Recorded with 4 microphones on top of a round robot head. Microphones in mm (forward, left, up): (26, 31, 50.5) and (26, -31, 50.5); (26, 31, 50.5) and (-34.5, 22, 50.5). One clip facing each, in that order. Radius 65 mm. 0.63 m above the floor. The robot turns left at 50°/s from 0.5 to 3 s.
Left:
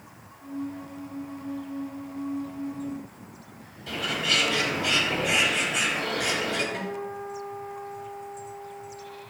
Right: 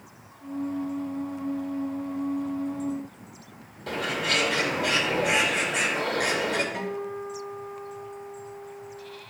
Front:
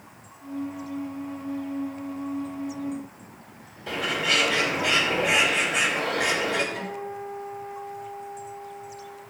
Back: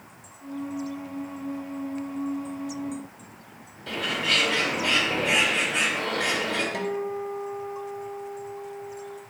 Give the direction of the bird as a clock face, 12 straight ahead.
2 o'clock.